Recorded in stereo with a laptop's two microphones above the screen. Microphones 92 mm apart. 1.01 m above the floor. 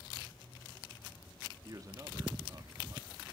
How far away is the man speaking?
About 1.7 m.